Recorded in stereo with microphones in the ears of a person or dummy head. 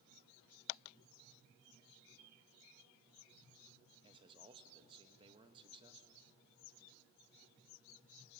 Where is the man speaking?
25° right (ahead or behind), 1.5 m.